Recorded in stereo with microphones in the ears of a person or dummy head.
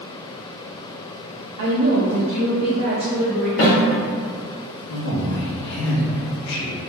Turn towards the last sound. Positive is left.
turn(degrees=75)  # may be behind; listen again after turning